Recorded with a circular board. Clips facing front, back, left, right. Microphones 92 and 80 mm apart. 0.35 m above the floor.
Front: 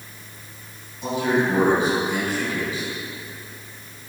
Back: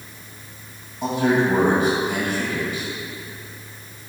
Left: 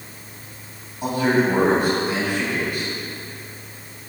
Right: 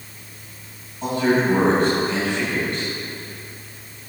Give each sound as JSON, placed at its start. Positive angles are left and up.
{"t": 1.0, "sound": "a man speaking", "azimuth_deg": 170, "distance_m": 2.0}